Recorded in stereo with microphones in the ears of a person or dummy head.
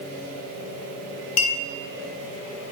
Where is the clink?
45° left (ahead or behind), 1.1 m.